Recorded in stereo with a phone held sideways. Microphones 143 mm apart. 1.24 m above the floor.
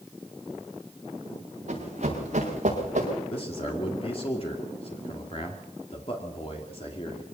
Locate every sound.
1.7 s running footsteps: 50° right (ahead or behind), 7 m; by 3.1 s 55° right (ahead or behind), 6.5 m
3.3 s a man speaking: 40° left (ahead or behind), 2.5 m